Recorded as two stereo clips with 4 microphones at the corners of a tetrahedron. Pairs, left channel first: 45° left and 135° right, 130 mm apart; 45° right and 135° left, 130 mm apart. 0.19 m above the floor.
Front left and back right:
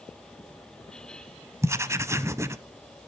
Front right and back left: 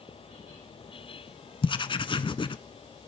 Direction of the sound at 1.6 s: 75° right.